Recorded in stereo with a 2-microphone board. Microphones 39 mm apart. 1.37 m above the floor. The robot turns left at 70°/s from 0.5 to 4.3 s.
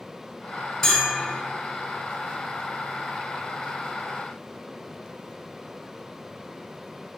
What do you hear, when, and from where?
0.8 s a bell: 170° left, 1.6 m; by 1.4 s 130° left, 1.6 m